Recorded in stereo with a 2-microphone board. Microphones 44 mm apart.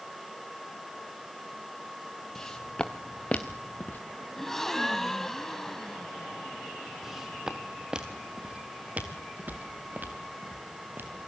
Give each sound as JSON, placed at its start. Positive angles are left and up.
{"t": 2.4, "sound": "footsteps", "side_deg": 10, "distance_m": 2.5}
{"t": 4.4, "sound": "a gasp", "side_deg": 10, "distance_m": 1.3}
{"t": 7.0, "sound": "footsteps", "side_deg": -5, "distance_m": 3.0}